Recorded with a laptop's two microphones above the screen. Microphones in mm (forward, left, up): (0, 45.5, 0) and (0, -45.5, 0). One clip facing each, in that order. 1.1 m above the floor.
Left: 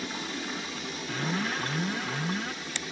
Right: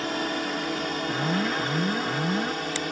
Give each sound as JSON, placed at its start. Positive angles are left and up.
{"t": 0.0, "sound": "a drone", "side_deg": -65}
{"t": 1.1, "sound": "an alarm", "side_deg": -25}